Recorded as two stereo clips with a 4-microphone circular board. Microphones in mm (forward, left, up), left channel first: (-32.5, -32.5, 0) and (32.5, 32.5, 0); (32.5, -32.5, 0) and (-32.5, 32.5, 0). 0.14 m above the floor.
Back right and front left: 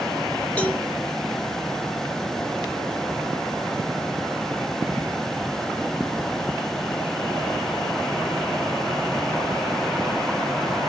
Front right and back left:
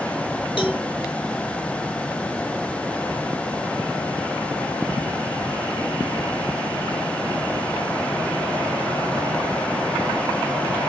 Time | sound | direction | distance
0.6 | a cowbell | 60° right | 1.3 m